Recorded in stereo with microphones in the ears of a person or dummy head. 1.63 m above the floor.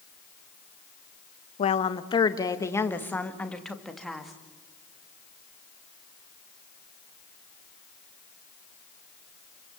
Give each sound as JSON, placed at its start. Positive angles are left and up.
{"t": 1.6, "sound": "a woman speaking", "side_deg": 35, "distance_m": 1.4}